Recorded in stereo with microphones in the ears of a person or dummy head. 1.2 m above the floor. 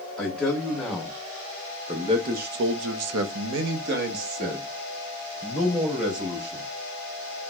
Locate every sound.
0.2 s a man speaking: 5° left (ahead or behind), 1.4 m; by 6.7 s 40° right (ahead or behind), 2 m